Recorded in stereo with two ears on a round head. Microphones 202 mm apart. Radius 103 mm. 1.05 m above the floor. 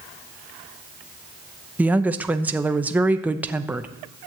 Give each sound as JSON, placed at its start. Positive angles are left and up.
{"t": 1.8, "sound": "a woman speaking", "side_deg": -5, "distance_m": 0.6}